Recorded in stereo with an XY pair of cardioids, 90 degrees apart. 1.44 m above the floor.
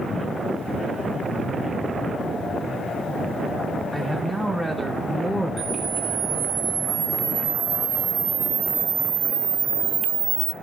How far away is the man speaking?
About 5 m.